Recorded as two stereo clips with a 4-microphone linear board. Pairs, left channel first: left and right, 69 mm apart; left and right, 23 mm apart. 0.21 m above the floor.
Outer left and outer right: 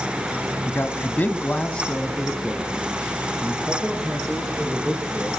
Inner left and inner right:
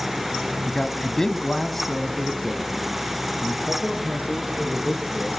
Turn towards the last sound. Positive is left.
turn(degrees=-10)  # may be behind; listen again after turning